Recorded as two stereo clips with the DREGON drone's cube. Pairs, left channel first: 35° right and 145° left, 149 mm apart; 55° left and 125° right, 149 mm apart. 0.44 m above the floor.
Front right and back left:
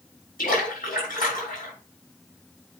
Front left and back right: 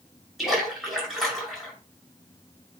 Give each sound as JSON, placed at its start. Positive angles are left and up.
{"t": 0.4, "sound": "a splash", "azimuth_deg": -35, "distance_m": 6.0}